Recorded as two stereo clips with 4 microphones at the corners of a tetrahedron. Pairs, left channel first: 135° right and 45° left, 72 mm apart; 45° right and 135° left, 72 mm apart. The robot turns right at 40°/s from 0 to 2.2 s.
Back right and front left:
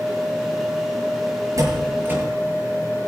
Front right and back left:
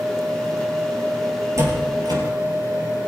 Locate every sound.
1.6 s a door slam: 85° left, 4.5 m; by 2.2 s 115° left, 4.5 m